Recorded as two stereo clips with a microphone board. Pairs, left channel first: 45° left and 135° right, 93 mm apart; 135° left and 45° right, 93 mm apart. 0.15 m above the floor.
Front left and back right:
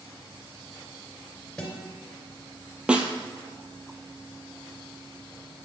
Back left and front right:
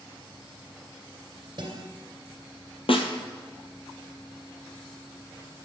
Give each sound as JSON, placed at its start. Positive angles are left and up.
{"t": 1.6, "sound": "a guitar", "azimuth_deg": -40, "distance_m": 2.5}
{"t": 2.9, "sound": "a snare drum", "azimuth_deg": 145, "distance_m": 1.1}